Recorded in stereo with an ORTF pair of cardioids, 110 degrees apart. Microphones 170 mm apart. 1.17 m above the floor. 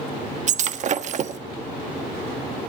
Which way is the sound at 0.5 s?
45° right.